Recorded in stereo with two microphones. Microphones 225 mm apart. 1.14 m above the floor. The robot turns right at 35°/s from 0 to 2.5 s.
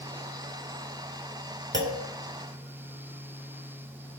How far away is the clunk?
About 1.8 m.